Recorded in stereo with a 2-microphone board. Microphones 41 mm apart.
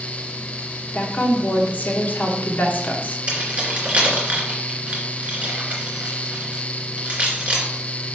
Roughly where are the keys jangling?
Right.